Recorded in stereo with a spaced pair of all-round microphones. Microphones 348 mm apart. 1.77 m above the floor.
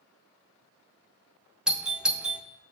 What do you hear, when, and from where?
1.7 s a doorbell: centre (ahead or behind), 0.6 m